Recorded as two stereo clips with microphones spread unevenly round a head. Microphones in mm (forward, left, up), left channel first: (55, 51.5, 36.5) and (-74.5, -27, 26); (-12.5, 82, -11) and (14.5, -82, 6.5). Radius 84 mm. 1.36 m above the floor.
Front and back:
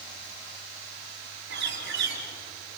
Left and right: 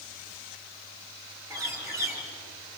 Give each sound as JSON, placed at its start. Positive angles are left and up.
{"t": 1.5, "sound": "a bird", "azimuth_deg": -155, "distance_m": 4.5}